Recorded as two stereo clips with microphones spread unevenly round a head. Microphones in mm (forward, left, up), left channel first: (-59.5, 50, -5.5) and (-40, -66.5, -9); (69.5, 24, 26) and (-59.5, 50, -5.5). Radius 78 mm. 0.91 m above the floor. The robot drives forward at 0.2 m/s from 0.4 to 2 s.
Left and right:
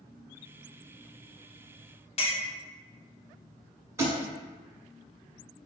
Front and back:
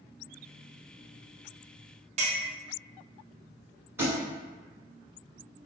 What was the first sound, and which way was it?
A clink, 140° left.